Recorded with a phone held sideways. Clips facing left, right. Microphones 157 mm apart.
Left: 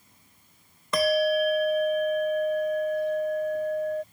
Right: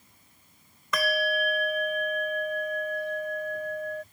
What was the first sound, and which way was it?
A bell, 30° left (ahead or behind).